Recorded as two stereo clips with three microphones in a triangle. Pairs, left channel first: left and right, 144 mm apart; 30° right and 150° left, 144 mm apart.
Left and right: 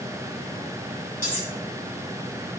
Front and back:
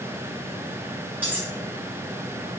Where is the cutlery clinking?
75° left, 1.2 m.